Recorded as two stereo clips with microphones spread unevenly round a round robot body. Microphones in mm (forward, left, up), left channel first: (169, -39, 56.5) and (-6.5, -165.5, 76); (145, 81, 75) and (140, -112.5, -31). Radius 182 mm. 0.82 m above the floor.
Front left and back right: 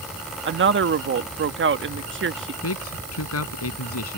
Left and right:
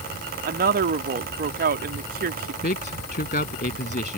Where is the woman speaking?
115° right.